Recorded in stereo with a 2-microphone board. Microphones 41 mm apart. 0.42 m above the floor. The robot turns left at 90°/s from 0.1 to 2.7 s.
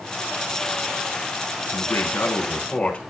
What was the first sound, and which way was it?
A man speaking, 120° left.